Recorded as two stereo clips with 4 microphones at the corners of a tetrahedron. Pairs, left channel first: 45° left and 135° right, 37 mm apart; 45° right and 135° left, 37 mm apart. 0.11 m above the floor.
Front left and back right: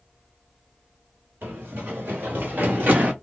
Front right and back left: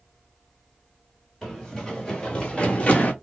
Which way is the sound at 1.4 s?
125° right.